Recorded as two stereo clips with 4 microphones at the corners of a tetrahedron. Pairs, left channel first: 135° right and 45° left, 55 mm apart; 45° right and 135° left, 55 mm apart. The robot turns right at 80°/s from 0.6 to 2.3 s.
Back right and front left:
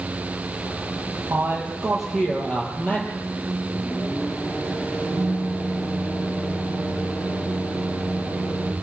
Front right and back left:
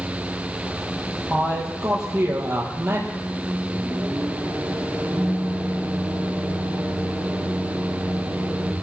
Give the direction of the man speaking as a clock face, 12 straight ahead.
9 o'clock.